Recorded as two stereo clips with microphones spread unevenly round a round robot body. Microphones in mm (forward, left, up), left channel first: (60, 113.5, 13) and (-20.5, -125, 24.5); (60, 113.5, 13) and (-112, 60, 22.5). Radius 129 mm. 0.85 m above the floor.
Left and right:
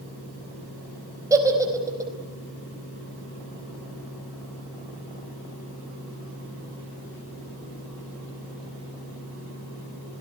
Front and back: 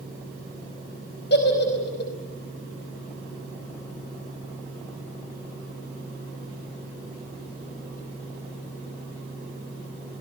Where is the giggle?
30° right, 4.5 m.